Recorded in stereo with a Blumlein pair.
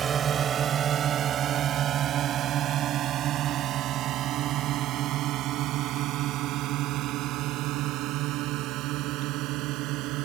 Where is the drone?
20° right; by 10.3 s 40° right.